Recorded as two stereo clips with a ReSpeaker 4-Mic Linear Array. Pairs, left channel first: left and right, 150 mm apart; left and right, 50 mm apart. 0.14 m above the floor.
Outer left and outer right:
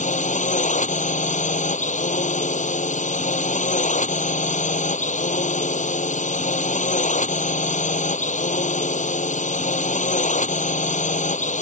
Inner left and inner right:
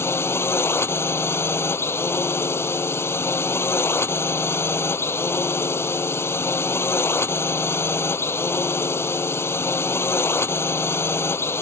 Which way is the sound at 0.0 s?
55° left (ahead or behind).